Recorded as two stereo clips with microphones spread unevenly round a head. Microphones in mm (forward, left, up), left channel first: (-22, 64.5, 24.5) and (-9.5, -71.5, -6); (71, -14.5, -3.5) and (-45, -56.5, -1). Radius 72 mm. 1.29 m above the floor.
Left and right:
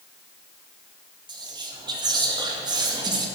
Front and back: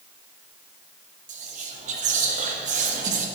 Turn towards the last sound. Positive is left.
turn(degrees=-140)